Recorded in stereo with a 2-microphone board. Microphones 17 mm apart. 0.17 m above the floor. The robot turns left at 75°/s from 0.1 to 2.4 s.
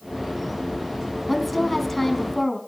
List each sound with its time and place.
1.3 s a woman speaking: centre (ahead or behind), 1.4 m; by 2.6 s 25° left (ahead or behind), 1.4 m